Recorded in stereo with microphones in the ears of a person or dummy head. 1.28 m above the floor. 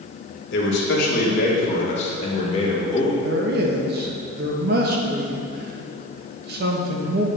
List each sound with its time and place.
0.5 s a man speaking: 65° left (ahead or behind), 1.7 m; by 3.1 s 25° left (ahead or behind), 2.5 m
3.2 s a man speaking: 55° right (ahead or behind), 1.1 m